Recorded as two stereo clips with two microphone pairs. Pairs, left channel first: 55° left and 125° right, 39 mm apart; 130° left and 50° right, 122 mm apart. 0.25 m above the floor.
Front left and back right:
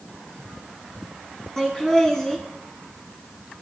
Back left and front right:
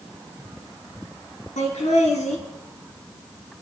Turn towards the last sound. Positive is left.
turn(degrees=125)